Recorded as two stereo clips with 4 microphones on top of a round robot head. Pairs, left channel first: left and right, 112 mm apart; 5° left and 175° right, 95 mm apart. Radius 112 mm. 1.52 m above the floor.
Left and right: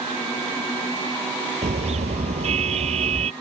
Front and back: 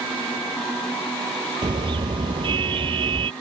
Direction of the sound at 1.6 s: 125° right.